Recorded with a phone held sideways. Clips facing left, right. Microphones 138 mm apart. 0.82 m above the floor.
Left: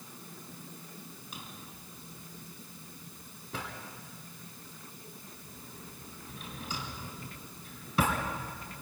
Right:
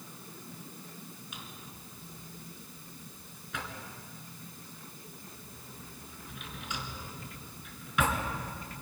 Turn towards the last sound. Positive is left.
turn(degrees=35)  # may be behind; listen again after turning